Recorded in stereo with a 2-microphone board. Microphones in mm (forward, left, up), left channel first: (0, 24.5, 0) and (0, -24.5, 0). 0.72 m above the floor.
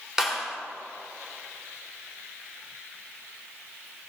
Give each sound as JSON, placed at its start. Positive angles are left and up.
{"t": 0.2, "sound": "a clap", "side_deg": -10, "distance_m": 2.5}